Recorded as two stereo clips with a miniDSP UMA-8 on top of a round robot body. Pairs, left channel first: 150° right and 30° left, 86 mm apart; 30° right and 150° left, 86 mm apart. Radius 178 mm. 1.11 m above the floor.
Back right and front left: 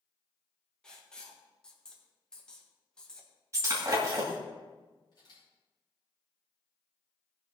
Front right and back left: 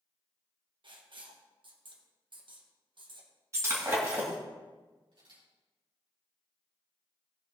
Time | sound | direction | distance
0.8 | writing | 130° left | 2.0 m
3.5 | breaking glass | 90° left | 2 m
5.1 | a camera shutter | 170° left | 6 m